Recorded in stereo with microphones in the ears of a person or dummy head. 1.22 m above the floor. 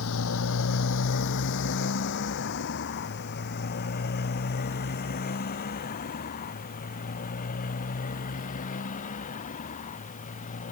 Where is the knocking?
I don't hear knocking.